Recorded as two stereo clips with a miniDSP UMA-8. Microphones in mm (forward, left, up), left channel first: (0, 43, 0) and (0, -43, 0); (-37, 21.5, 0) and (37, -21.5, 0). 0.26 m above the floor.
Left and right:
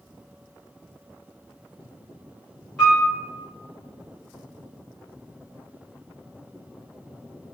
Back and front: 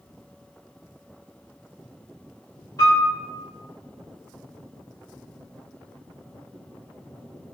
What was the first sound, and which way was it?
A piano, 170° left.